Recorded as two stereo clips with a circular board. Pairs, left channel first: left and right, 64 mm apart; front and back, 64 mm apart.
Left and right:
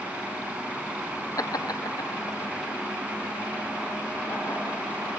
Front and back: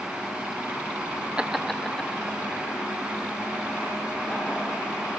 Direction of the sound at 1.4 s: 105° left.